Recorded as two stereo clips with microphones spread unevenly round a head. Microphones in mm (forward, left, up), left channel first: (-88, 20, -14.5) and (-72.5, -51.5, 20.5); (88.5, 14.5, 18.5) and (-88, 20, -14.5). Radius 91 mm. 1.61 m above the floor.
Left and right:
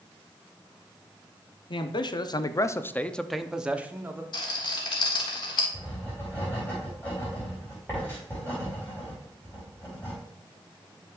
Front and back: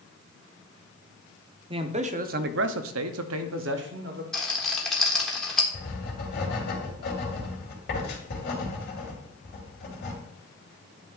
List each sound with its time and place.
1.7 s a man speaking: 115° left, 1.0 m; by 4.2 s 140° right, 1.3 m
4.3 s a rattle: 65° left, 1.4 m
5.7 s writing: 10° left, 3 m